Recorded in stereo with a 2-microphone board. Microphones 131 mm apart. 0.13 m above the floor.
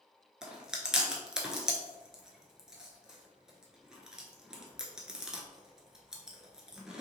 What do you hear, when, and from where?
0.4 s chewing: 5° right (ahead or behind), 0.6 m